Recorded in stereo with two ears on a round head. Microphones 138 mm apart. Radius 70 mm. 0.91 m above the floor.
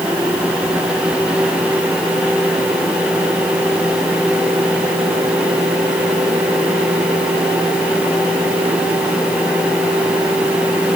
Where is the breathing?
I don't hear breathing.